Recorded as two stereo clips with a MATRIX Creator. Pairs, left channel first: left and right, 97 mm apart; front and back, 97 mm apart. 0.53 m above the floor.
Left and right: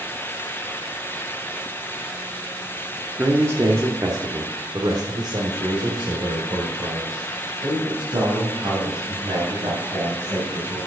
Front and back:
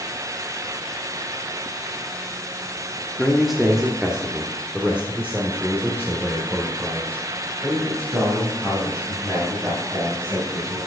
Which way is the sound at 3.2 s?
80° right.